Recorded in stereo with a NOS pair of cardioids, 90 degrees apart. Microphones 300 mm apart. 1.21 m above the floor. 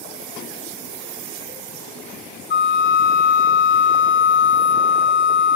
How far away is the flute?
About 3 m.